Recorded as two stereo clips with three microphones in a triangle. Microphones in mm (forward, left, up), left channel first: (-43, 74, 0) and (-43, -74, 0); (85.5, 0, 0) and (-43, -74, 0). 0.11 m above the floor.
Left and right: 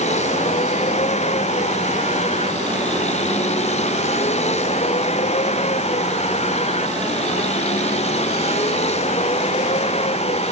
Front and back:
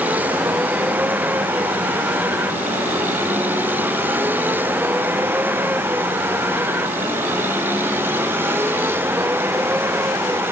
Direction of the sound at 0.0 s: 130° left.